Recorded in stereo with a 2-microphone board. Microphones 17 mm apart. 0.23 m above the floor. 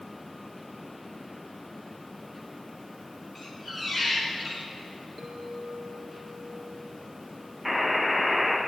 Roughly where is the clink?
Right.